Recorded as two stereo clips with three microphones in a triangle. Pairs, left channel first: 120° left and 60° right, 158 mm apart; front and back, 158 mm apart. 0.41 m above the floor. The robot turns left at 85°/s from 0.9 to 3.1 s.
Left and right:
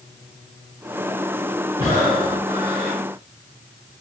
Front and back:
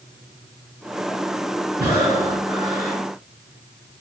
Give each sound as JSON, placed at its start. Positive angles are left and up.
{"t": 1.8, "sound": "breathing", "azimuth_deg": 180, "distance_m": 1.8}